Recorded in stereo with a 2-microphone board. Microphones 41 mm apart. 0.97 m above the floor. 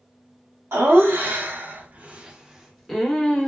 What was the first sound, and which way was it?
Laughter, 65° right (ahead or behind).